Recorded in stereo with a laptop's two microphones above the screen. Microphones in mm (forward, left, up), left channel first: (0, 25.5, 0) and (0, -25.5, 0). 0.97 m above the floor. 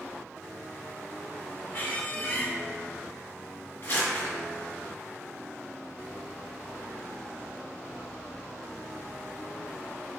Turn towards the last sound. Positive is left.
turn(degrees=55)  # may be behind; listen again after turning